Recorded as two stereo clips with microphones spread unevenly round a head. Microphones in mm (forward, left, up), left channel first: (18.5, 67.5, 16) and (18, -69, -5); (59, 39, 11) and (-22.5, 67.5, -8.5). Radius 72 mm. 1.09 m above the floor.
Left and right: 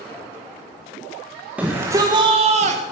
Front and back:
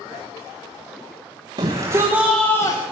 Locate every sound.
1.6 s a shout: 170° right, 1.3 m; by 2.8 s 80° right, 1.1 m